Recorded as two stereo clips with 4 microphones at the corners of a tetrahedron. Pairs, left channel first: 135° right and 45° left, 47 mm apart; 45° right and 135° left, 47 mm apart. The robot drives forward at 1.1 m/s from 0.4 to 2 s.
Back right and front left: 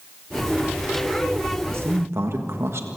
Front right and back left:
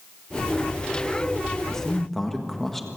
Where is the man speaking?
30° left, 1.7 m; by 2.9 s 40° left, 1.5 m.